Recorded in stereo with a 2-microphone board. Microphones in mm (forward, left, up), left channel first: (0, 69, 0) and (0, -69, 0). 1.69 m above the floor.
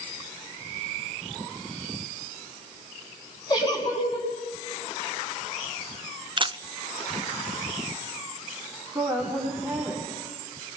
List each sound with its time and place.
3.5 s a giggle: 30° left (ahead or behind), 6 m
6.4 s a camera shutter: 35° right (ahead or behind), 0.6 m
8.9 s a woman speaking: 15° right (ahead or behind), 6 m